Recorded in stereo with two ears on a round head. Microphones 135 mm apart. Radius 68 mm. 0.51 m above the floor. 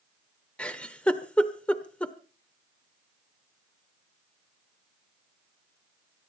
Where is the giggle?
5° left (ahead or behind), 1.1 m.